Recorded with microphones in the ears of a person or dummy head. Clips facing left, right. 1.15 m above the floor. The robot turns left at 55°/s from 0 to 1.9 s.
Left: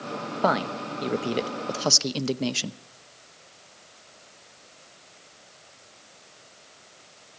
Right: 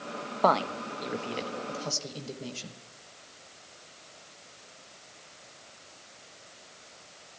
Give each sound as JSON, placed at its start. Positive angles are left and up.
{"t": 0.4, "sound": "a woman speaking", "azimuth_deg": 180, "distance_m": 0.8}